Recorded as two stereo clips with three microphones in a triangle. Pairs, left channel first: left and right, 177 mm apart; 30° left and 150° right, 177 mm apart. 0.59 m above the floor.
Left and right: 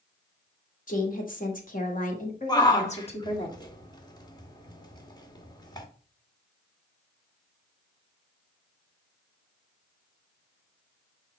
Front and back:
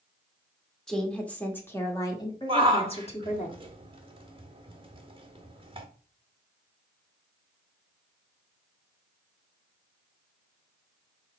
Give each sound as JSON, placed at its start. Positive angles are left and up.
{"t": 0.9, "sound": "a woman speaking", "azimuth_deg": 115, "distance_m": 1.7}
{"t": 2.5, "sound": "a shout", "azimuth_deg": 155, "distance_m": 1.3}